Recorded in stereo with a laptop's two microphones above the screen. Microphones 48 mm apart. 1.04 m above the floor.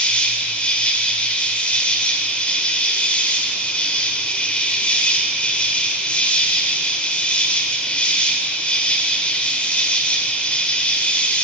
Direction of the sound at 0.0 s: 25° left (ahead or behind).